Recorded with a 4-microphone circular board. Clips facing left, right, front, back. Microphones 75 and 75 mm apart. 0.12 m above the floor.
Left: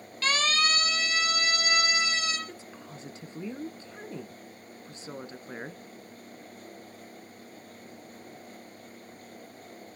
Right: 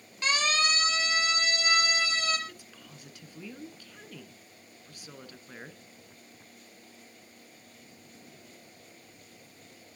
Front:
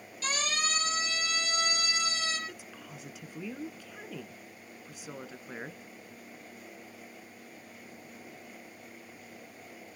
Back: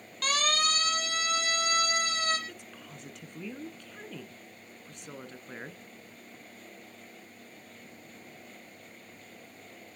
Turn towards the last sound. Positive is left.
turn(degrees=80)